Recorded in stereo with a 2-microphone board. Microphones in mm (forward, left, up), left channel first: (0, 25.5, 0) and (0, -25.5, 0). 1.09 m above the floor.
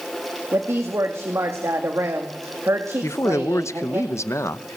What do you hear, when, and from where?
0.5 s a woman speaking: 60° right (ahead or behind), 2 m
3.0 s a man speaking: 65° left (ahead or behind), 0.8 m